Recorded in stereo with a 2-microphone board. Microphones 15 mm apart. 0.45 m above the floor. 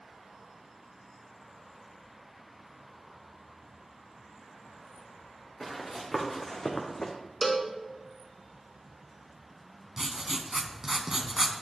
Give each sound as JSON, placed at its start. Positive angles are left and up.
{"t": 5.6, "sound": "running footsteps", "side_deg": 20, "distance_m": 2.0}
{"t": 7.4, "sound": "a cowbell", "side_deg": 5, "distance_m": 0.6}
{"t": 10.0, "sound": "writing", "side_deg": -40, "distance_m": 0.6}